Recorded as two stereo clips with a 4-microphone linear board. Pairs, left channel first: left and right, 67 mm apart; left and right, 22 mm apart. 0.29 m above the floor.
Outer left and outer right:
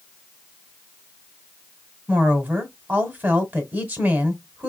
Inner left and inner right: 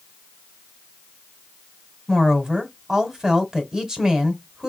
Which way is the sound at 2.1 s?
25° right (ahead or behind).